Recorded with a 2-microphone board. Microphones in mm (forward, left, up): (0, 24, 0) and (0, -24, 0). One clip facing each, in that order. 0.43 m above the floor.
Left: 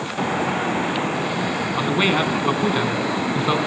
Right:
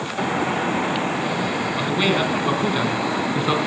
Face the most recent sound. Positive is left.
turn(degrees=0)  # may be behind; listen again after turning